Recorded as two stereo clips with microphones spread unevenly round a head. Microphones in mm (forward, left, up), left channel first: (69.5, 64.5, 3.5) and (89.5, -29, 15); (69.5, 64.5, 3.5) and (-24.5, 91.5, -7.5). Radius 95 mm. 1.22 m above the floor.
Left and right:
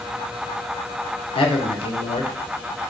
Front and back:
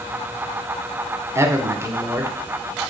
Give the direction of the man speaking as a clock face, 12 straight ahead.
9 o'clock.